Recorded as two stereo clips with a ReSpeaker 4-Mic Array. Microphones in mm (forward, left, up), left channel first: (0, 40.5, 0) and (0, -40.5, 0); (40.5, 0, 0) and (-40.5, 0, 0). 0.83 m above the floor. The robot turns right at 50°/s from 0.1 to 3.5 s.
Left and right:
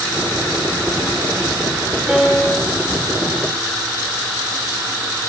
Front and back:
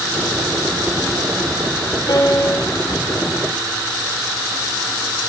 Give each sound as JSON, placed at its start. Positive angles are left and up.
{"t": 2.1, "sound": "a piano", "azimuth_deg": -10, "distance_m": 1.3}